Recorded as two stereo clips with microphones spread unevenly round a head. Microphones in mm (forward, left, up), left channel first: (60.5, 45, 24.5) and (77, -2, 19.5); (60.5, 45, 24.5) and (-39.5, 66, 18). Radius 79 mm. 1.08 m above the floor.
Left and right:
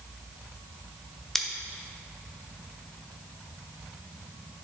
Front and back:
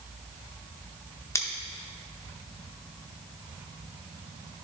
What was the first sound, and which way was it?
Scissors, 35° left.